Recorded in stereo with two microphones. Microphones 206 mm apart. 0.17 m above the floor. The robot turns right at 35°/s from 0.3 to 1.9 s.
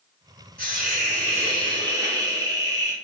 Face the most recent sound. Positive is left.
turn(degrees=-25)